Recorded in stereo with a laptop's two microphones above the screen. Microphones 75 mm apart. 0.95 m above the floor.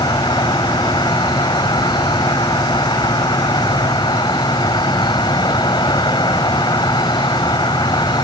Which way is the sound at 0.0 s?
75° left (ahead or behind).